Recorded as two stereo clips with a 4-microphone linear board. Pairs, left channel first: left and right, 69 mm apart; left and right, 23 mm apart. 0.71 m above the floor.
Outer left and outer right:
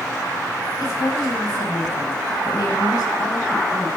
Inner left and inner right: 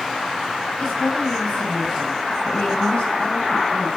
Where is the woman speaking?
55° left (ahead or behind), 6.5 m.